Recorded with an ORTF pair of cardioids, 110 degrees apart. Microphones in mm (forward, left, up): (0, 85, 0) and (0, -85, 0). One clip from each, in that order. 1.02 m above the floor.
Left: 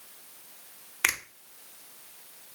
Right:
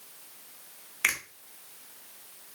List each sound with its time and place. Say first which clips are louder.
1.0 s a finger snap: even; 30° left, 0.5 m